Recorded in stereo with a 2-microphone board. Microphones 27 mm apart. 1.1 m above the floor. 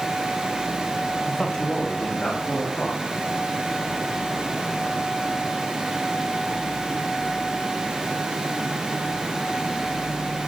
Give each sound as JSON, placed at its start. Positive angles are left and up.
{"t": 1.3, "sound": "a man speaking", "side_deg": 25, "distance_m": 0.8}